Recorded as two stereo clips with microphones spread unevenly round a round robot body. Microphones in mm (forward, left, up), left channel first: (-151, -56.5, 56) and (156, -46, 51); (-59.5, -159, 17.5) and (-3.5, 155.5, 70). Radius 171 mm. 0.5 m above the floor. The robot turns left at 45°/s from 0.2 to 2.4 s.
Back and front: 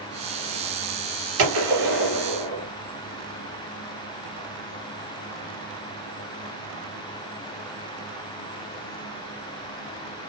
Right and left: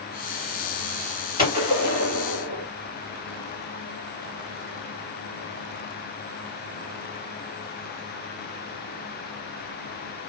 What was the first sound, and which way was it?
A gunshot, 20° right.